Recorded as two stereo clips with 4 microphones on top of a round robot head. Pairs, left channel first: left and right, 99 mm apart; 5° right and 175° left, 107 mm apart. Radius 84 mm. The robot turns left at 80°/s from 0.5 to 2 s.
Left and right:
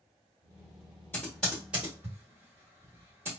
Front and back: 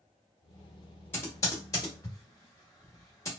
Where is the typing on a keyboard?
35° left, 0.9 m; by 3.3 s 35° right, 0.9 m.